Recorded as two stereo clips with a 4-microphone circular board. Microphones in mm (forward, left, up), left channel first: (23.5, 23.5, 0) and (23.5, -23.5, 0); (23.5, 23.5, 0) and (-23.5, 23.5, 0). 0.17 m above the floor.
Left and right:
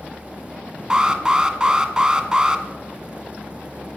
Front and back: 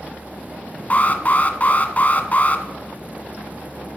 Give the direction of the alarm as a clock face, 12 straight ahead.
1 o'clock.